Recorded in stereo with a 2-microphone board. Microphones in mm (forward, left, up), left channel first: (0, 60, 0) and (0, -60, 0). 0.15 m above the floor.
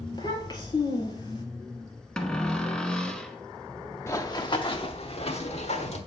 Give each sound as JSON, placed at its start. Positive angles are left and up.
{"t": 0.1, "sound": "a child speaking", "side_deg": 35, "distance_m": 1.6}
{"t": 2.2, "sound": "a cupboard door", "side_deg": 5, "distance_m": 0.7}
{"t": 4.1, "sound": "running footsteps", "side_deg": 25, "distance_m": 0.7}